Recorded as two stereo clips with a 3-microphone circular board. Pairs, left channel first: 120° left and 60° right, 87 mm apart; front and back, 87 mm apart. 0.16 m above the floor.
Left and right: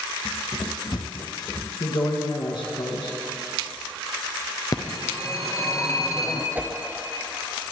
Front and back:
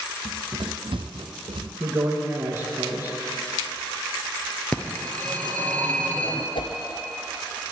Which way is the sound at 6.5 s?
10° left.